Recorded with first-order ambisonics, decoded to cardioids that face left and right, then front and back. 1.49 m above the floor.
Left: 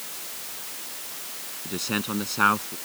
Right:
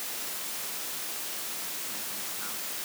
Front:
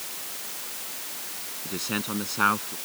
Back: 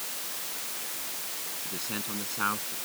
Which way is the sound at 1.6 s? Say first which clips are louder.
Left 9 dB, front 7 dB; 65° left.